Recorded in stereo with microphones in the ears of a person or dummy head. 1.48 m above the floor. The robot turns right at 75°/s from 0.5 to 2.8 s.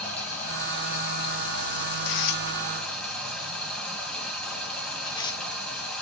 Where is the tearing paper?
60° left (ahead or behind), 0.7 m; by 5.4 s 15° left (ahead or behind), 0.7 m.